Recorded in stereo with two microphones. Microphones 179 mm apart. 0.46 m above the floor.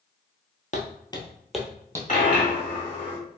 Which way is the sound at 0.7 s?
45° left (ahead or behind).